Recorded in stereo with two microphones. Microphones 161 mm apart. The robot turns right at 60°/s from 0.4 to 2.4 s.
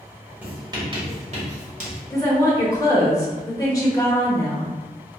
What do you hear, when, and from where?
0.4 s writing: 10° right (ahead or behind), 1.2 m; by 2.0 s 45° right (ahead or behind), 1.2 m
2.1 s a woman speaking: 20° left (ahead or behind), 0.8 m